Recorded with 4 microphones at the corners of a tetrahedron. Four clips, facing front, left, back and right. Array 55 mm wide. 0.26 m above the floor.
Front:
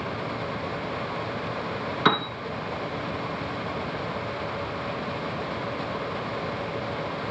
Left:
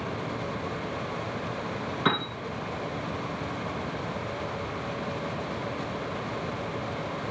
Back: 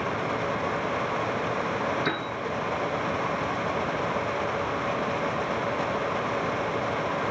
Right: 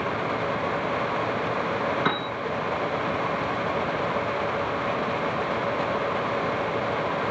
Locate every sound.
2.0 s a piano: 5° right, 3.5 m